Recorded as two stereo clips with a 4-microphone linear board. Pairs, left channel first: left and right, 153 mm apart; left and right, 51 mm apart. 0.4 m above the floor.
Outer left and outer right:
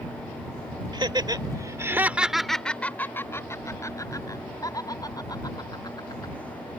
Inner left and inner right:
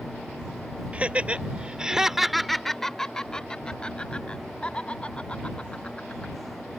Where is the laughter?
30° right (ahead or behind); by 6.3 s 25° left (ahead or behind).